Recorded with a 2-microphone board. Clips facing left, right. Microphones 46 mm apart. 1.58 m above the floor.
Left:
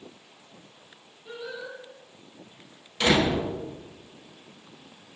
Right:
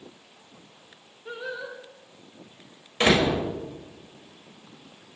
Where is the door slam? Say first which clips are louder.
Right 1 dB; 40° right (ahead or behind), 5.5 m.